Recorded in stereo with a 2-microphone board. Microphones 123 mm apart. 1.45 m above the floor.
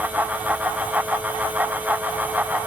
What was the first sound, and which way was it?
Only background noise.